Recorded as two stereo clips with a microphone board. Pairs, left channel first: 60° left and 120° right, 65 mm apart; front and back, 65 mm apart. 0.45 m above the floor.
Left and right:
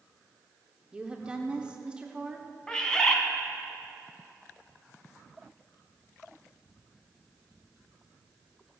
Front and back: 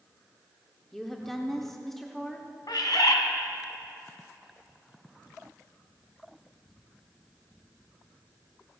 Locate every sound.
0.9 s a woman speaking: 80° right, 0.9 m
2.7 s a bird: 15° right, 1.3 m